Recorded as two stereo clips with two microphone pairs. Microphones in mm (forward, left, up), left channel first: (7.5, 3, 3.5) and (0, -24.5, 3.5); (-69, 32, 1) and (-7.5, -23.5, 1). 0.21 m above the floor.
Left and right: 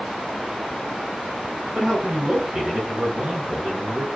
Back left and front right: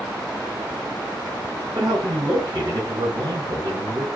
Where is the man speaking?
50° right, 3.5 m.